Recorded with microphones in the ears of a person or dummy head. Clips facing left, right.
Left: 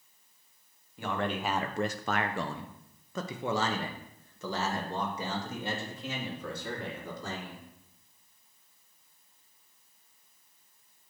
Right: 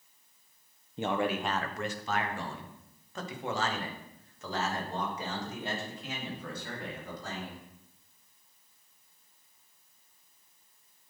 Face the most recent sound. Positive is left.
turn(degrees=80)